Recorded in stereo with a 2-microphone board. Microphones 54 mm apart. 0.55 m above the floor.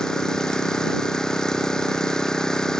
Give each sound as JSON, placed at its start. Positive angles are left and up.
{"t": 0.0, "sound": "an engine running", "side_deg": 10}